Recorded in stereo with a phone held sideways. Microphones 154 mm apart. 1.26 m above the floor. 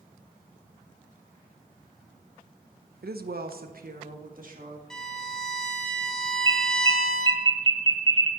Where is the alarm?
30° right (ahead or behind), 1.1 m.